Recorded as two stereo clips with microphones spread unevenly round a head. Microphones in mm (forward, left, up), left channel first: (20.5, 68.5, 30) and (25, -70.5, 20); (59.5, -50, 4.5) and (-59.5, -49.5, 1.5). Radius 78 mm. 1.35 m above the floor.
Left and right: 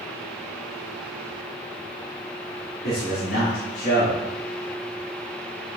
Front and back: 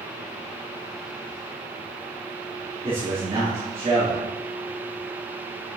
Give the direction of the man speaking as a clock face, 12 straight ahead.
8 o'clock.